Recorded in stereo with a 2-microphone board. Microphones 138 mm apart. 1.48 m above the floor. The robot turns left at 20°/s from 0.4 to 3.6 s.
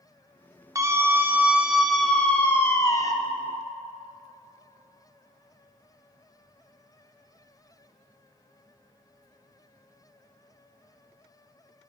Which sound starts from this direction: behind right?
A scream, at 0.8 s.